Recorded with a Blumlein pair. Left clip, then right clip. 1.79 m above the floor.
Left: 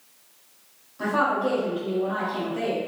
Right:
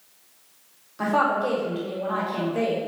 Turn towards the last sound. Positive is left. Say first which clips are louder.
# right 1 dB
turn(degrees=-35)